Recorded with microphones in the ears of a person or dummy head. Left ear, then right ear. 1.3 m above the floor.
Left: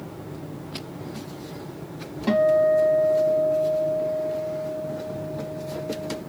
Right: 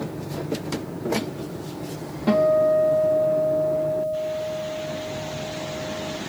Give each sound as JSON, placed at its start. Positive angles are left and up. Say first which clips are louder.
{"t": 2.3, "sound": "a guitar", "louder": "even", "side_deg": 10, "distance_m": 1.7}